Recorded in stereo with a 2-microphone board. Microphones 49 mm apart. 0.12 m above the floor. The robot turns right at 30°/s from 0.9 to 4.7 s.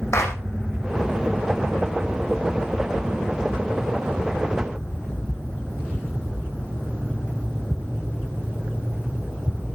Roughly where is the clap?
Left.